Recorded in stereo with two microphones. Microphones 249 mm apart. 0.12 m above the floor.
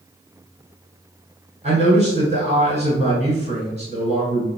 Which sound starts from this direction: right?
A man speaking, at 1.6 s.